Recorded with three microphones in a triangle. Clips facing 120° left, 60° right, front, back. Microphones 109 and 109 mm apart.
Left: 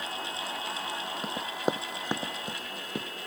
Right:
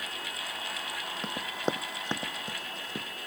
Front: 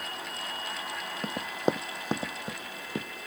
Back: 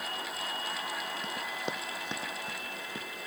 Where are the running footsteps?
35° left; by 3.1 s 50° left.